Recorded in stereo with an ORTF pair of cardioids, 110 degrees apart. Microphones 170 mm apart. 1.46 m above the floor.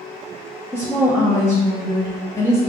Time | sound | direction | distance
0.7 | a woman speaking | 15° left | 0.8 m